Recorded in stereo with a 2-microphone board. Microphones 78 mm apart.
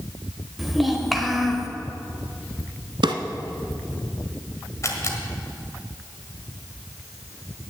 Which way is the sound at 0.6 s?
Centre (ahead or behind).